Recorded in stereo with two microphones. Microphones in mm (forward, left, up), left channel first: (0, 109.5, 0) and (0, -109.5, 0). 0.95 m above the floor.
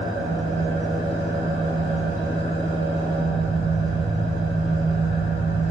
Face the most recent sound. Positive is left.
turn(degrees=-80)